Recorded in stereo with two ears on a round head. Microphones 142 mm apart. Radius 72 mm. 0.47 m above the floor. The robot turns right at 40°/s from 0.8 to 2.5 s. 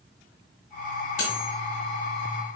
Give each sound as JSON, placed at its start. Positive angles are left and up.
{"t": 1.2, "sound": "cutlery clinking", "side_deg": 55, "distance_m": 1.7}